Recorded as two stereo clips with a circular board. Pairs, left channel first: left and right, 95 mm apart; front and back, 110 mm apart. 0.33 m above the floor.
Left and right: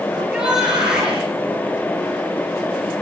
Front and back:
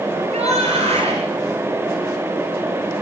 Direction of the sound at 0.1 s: 170° right.